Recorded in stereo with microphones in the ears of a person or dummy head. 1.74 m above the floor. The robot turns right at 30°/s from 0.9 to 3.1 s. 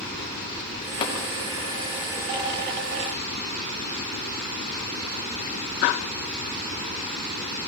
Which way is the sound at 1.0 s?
25° left (ahead or behind).